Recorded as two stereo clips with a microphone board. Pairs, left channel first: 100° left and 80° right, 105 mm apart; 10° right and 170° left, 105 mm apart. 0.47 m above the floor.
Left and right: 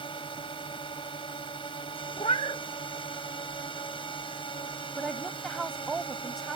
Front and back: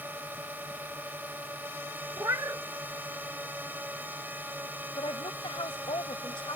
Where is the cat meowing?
115° left.